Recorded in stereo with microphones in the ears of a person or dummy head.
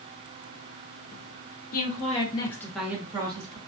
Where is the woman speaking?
45° left (ahead or behind), 1.1 m; by 3.6 s 35° right (ahead or behind), 1.1 m.